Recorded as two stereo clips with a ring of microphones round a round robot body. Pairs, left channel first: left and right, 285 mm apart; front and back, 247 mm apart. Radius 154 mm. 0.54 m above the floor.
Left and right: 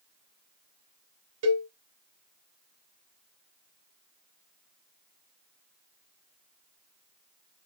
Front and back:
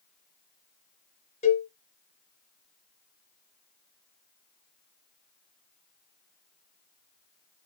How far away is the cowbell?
About 1.1 m.